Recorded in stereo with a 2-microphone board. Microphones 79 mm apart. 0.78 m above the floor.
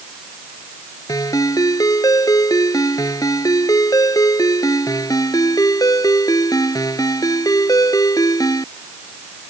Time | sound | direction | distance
1.1 | a ringtone | 50° left (ahead or behind) | ?